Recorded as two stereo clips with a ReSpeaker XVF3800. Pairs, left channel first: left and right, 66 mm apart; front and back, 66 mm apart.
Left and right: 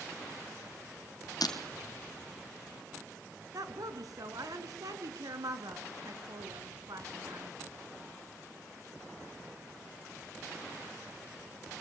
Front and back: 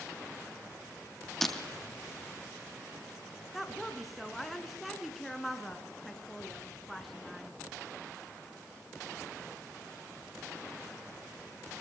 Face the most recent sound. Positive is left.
turn(degrees=-90)